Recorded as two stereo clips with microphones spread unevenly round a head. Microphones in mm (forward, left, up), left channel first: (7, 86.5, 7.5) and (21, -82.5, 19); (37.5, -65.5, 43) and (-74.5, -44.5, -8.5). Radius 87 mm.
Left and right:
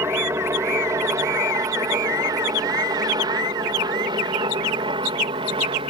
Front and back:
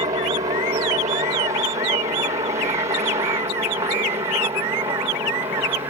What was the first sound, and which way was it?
A helicopter, 160° right.